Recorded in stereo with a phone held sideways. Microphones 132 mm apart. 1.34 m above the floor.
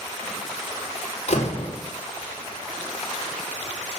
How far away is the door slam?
About 3.5 m.